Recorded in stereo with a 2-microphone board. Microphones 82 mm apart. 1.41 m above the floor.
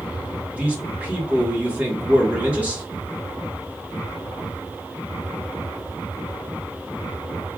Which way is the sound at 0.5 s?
15° right (ahead or behind).